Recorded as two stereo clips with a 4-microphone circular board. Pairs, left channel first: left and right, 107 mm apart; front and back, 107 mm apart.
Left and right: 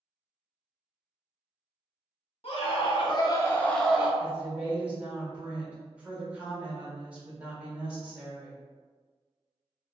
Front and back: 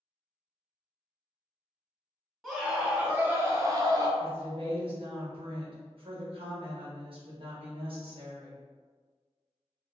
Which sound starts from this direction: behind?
A woman speaking, at 4.2 s.